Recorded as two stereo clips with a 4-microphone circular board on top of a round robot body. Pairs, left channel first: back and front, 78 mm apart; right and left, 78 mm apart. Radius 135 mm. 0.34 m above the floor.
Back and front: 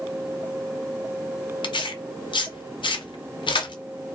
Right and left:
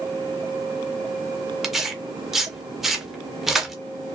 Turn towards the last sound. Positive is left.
turn(degrees=175)